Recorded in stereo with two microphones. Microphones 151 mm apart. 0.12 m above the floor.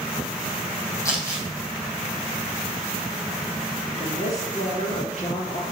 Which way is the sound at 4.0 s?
45° left (ahead or behind).